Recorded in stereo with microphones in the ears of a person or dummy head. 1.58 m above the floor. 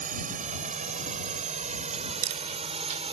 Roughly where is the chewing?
Right.